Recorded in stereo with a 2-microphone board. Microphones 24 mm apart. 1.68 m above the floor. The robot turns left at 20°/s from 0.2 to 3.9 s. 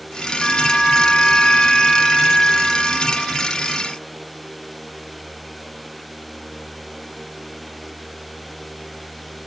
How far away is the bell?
About 4.5 m.